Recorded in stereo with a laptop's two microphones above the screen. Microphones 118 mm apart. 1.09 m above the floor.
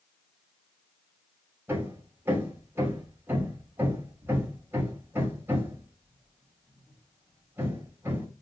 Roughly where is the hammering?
Right.